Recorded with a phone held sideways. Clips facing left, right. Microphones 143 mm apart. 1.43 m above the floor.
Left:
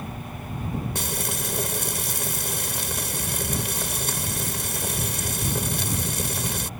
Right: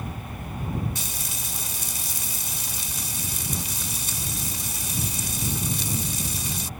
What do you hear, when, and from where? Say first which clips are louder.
0.9 s frying: left 7 dB; 70° left (ahead or behind)